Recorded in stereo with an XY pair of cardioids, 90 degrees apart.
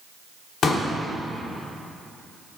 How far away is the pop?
About 1.9 m.